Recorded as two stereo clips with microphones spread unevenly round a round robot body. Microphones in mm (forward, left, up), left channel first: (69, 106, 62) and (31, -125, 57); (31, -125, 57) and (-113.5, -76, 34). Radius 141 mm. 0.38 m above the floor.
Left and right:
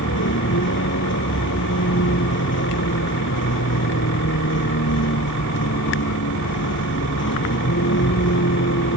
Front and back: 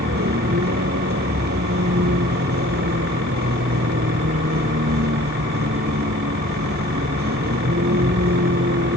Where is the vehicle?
130° left.